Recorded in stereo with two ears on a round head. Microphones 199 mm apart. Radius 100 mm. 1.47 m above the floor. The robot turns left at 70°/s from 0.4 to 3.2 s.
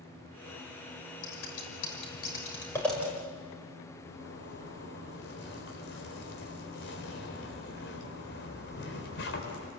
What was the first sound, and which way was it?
Scissors, 60° left (ahead or behind).